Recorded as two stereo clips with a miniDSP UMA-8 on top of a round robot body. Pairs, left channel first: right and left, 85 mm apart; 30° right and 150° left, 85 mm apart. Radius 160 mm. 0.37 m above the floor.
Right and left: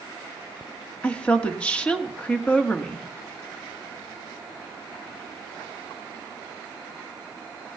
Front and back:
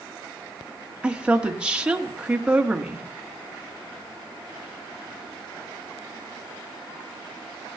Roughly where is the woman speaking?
Behind right.